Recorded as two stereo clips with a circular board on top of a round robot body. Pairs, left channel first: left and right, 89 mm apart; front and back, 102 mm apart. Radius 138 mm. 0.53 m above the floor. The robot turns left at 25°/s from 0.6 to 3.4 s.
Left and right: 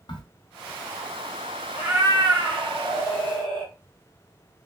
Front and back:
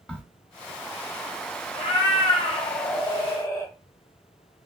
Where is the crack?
75° left, 0.9 m.